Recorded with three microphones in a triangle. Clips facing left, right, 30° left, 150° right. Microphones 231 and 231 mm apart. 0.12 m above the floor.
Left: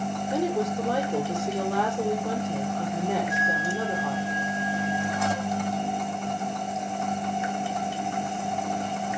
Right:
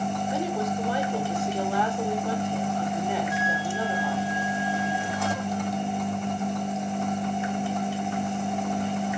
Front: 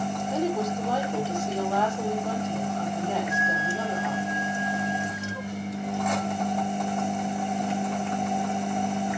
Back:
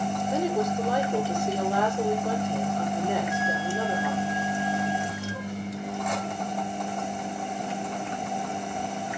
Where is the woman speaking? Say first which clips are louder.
Left 6 dB, even; 130° left, 5 m.